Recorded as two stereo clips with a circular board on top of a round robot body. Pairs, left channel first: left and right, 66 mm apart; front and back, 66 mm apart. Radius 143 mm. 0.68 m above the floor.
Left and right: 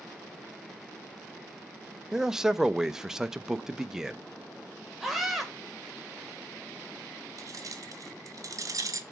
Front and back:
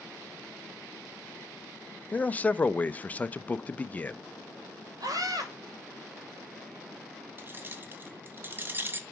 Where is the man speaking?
20° right, 0.6 m.